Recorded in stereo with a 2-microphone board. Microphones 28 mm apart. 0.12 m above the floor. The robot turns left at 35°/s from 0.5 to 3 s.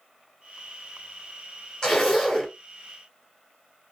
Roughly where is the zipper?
Centre.